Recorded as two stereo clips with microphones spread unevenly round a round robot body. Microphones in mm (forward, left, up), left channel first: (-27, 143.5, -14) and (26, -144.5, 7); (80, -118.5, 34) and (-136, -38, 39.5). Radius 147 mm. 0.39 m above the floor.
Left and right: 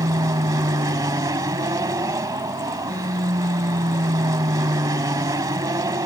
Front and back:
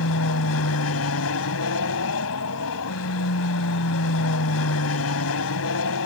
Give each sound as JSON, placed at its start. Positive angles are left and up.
{"t": 0.0, "sound": "an aircraft", "azimuth_deg": 0}